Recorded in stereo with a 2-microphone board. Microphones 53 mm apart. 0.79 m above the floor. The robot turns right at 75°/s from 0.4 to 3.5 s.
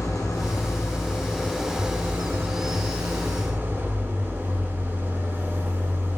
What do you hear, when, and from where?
0.0 s an engine running: 90° left, 4 m; by 6.2 s 40° right, 4 m